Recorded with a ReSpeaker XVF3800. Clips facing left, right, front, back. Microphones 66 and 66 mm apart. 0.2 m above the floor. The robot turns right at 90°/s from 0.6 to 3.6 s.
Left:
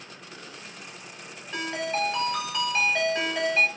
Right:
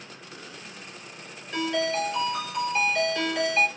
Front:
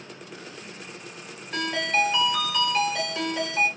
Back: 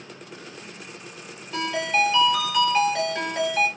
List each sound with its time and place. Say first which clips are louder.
1.5 s a ringtone: right 3 dB, back 1 dB; 10° left, 1.8 m; by 3.7 s 165° right, 1.8 m